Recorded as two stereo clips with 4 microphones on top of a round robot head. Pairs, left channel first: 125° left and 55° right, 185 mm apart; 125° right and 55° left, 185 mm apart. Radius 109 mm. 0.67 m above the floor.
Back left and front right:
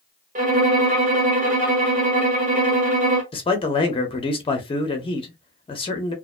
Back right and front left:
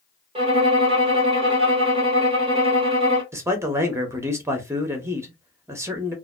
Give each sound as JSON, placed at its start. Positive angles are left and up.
{"t": 0.3, "sound": "a violin", "azimuth_deg": -5, "distance_m": 1.0}
{"t": 3.3, "sound": "a man speaking", "azimuth_deg": 115, "distance_m": 0.7}